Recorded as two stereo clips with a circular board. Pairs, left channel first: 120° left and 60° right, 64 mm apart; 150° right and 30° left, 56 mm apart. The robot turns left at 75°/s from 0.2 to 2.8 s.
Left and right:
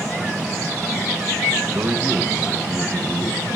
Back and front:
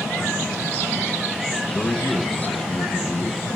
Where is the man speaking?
70° right, 1.6 m; by 3.4 s 150° right, 1.6 m.